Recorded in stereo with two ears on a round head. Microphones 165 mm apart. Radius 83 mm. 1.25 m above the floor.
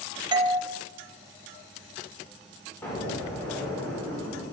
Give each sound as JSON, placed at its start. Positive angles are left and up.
{"t": 0.3, "sound": "a doorbell", "side_deg": -25, "distance_m": 0.7}
{"t": 2.8, "sound": "an explosion", "side_deg": 15, "distance_m": 3.0}